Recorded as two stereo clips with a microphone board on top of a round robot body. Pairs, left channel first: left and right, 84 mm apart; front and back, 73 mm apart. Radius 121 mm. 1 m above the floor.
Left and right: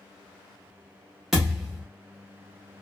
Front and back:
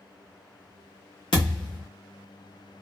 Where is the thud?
5° right, 0.7 m.